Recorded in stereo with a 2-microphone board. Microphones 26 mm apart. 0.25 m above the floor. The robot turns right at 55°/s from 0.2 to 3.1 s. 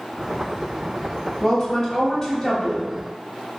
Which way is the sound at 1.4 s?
15° left (ahead or behind).